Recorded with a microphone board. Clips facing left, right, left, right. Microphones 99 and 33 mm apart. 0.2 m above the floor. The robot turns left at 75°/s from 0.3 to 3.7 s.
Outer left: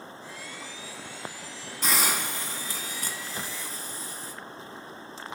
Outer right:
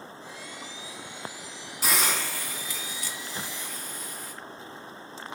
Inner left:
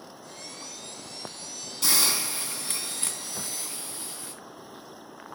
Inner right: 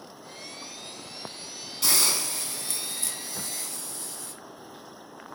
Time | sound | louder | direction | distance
1.8 | a hiss | even, even | 170° right | 2 m